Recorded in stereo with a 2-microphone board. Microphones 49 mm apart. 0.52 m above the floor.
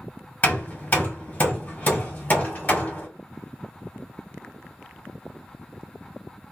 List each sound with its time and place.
0.4 s hammering: 35° left (ahead or behind), 1.5 m